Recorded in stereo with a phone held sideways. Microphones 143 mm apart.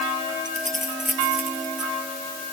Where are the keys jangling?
70° right (ahead or behind).